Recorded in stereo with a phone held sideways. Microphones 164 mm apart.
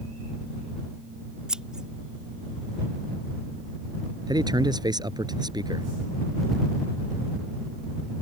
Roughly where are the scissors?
Centre.